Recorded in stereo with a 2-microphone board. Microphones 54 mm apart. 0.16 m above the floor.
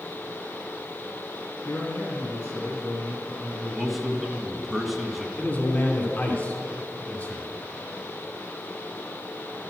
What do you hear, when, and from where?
1.6 s a man speaking: 40° left (ahead or behind), 1.8 m
3.7 s a man speaking: centre (ahead or behind), 1.1 m
5.4 s a man speaking: 30° left (ahead or behind), 1.3 m